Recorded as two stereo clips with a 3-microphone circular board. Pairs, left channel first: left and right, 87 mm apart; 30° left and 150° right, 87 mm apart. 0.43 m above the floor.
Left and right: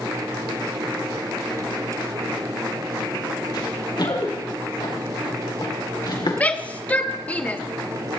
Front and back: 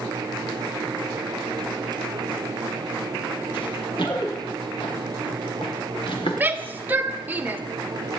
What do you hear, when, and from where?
3.5 s running footsteps: 55° left, 6.5 m; by 6.4 s 50° left, 4 m
6.4 s a shout: 155° left, 1.1 m